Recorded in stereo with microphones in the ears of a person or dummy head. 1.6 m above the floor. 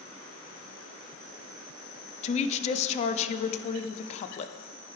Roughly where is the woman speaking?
Left.